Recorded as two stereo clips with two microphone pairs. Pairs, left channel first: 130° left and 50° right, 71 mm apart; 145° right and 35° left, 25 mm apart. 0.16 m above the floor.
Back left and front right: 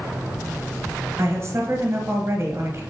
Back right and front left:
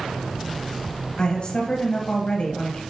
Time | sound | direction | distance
1.2 | a woman speaking | 100° right | 2 m